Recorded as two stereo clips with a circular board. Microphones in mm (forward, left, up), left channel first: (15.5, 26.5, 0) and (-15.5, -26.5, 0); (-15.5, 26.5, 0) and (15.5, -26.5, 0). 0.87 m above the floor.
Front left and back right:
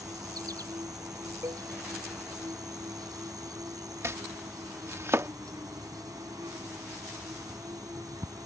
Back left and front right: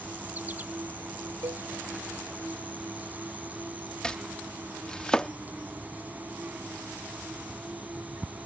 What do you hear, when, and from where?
0.0 s an insect: 120° right
1.4 s a cowbell: 85° right
4.0 s chopping: 165° right